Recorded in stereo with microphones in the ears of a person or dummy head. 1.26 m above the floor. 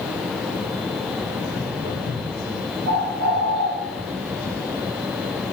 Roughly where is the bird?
Right.